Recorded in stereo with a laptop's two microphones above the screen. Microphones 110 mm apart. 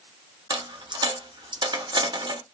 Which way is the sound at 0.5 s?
40° right (ahead or behind).